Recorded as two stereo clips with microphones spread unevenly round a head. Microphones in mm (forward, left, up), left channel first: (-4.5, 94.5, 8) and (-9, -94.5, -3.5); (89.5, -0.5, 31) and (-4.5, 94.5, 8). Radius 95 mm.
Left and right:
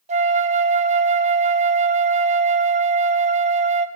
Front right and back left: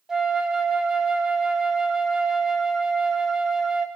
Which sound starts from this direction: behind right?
A flute, at 0.1 s.